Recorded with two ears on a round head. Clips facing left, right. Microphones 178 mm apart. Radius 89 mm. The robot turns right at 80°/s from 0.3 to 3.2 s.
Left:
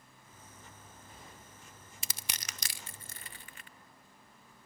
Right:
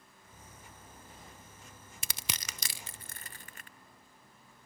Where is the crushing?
45° right (ahead or behind), 0.5 m; by 3.7 s 35° right (ahead or behind), 0.5 m.